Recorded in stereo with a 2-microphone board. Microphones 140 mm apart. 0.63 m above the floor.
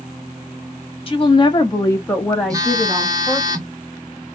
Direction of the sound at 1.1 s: 40° left (ahead or behind).